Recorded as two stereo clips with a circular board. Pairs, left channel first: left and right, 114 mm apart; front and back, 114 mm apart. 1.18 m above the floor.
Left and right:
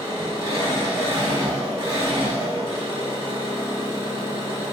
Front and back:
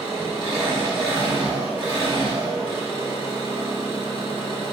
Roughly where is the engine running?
Behind right.